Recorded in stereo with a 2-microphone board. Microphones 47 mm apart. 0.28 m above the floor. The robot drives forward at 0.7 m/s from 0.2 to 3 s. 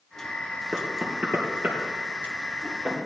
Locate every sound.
0.7 s knocking: 40° right (ahead or behind), 4 m; by 3.0 s 30° right (ahead or behind), 5 m